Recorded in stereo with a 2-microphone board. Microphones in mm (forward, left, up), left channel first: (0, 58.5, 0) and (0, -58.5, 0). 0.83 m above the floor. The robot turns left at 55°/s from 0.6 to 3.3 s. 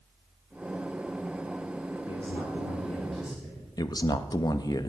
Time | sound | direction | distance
2.1 | a man speaking | 60° left | 3 m
3.8 | a man speaking | 35° left (ahead or behind) | 0.6 m